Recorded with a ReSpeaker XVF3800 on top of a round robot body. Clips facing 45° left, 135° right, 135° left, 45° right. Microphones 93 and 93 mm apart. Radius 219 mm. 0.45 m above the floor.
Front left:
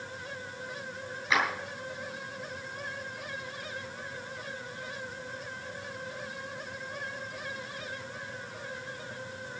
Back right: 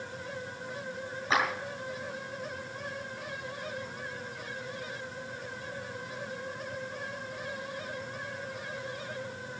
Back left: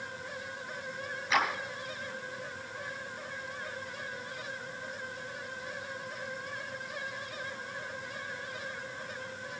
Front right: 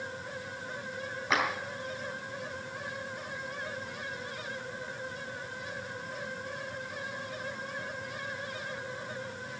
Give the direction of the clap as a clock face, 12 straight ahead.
3 o'clock.